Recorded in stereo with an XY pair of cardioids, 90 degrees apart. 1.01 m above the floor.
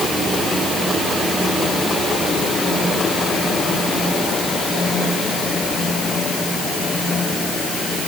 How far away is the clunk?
No clunk in this recording.